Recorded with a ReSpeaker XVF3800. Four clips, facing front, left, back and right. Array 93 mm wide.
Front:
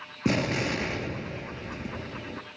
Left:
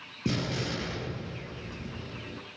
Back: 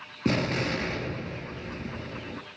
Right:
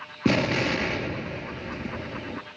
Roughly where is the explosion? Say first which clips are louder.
Right 9 dB, even; right.